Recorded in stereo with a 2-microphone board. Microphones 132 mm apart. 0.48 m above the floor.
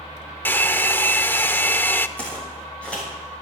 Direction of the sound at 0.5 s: 15° left (ahead or behind).